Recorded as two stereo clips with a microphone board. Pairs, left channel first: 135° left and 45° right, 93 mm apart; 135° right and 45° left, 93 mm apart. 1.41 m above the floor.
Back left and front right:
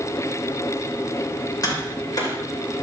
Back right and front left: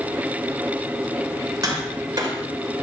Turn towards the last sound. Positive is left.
turn(degrees=90)